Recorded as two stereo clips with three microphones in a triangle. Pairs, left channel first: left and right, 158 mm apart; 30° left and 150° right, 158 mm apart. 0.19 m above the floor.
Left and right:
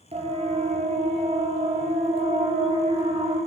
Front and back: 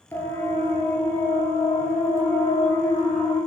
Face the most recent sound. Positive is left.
turn(degrees=-40)